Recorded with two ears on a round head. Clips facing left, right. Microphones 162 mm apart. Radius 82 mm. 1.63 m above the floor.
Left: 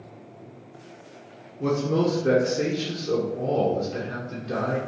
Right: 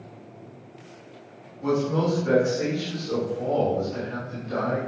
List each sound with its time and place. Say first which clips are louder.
1.6 s a man speaking: left 1 dB; 80° left, 1.1 m